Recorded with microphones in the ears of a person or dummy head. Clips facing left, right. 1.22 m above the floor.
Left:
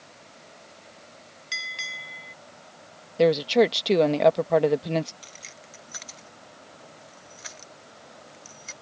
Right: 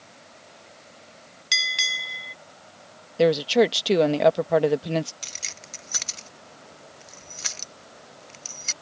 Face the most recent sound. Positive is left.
turn(degrees=-60)  # may be behind; listen again after turning